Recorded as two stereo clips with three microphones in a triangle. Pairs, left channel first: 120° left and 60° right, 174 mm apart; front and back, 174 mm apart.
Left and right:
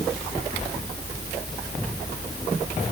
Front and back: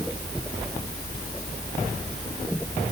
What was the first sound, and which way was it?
Only background noise.